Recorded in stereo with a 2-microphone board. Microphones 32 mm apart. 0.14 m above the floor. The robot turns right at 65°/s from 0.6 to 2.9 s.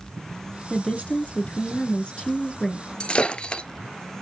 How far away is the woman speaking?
About 1.4 m.